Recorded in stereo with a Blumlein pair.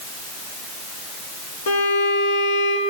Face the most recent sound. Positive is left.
turn(degrees=60)